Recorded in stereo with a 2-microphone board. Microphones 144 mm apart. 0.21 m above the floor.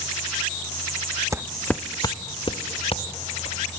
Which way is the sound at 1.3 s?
25° right (ahead or behind).